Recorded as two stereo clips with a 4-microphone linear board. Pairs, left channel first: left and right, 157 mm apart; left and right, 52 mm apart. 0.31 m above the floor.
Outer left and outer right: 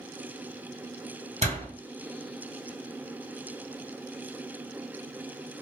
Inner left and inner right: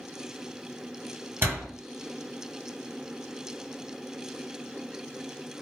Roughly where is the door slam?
Right.